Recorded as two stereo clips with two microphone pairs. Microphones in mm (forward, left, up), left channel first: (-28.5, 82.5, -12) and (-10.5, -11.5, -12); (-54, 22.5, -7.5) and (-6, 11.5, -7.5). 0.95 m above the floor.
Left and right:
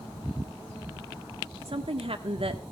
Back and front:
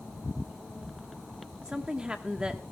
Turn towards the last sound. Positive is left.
turn(degrees=-85)